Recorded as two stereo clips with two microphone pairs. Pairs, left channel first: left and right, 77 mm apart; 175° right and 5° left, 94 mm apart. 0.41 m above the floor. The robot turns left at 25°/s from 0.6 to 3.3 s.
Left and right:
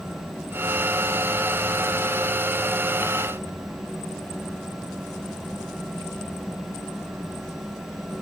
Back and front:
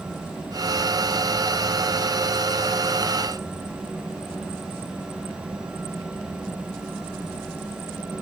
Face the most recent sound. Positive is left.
No sound to turn to.